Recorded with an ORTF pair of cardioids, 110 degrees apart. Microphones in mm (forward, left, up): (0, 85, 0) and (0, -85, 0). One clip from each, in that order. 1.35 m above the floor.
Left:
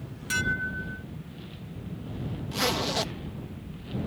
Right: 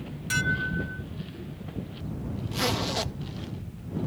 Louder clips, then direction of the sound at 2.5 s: Left 1 dB; 10° left.